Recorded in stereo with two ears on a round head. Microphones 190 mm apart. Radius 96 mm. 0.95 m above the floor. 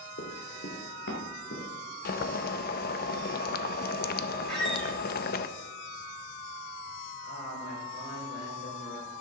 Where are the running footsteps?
50° left (ahead or behind), 3 m; by 1.7 s 55° left (ahead or behind), 4.5 m.